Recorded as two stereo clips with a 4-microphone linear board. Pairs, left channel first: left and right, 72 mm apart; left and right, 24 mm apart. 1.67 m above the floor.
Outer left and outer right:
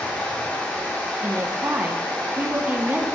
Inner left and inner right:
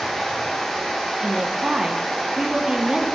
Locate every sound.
0.0 s running water: 20° left (ahead or behind), 1.4 m
1.2 s a woman speaking: 25° right (ahead or behind), 0.6 m